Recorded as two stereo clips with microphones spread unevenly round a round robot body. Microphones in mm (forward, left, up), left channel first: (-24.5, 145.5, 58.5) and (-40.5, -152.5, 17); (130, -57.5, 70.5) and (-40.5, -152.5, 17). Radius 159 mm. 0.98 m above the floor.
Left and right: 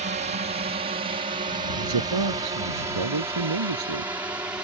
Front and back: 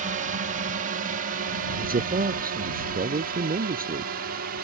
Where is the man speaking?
105° right.